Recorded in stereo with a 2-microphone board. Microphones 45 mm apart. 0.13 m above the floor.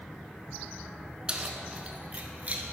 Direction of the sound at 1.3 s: 20° right (ahead or behind).